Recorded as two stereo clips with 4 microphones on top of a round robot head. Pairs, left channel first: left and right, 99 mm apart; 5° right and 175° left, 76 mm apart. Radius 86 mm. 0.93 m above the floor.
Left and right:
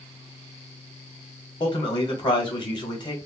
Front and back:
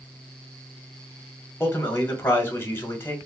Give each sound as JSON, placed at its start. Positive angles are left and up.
{"t": 1.6, "sound": "a man speaking", "azimuth_deg": 50, "distance_m": 0.9}